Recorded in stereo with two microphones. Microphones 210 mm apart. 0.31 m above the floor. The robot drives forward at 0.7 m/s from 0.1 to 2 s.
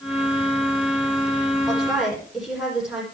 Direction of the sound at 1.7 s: Centre (ahead or behind).